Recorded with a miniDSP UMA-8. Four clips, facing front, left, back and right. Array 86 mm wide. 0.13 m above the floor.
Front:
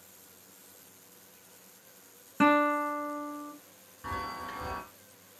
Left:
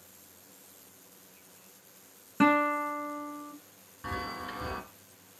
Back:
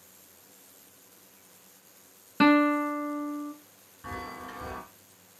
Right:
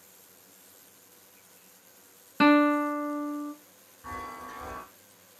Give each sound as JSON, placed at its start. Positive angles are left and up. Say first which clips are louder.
{"t": 2.4, "sound": "a guitar", "louder": "right 4 dB, back 3 dB", "azimuth_deg": -140, "distance_m": 0.7}
{"t": 4.0, "sound": "a chime", "louder": "left 2 dB, front 2 dB", "azimuth_deg": 80, "distance_m": 1.9}